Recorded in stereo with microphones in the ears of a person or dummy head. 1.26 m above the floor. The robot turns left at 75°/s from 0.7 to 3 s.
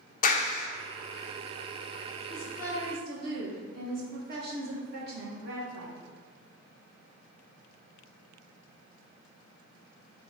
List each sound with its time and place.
0.2 s a clap: 40° left (ahead or behind), 0.9 m
2.3 s a woman speaking: straight ahead, 1.4 m; by 6.0 s 55° right, 1.4 m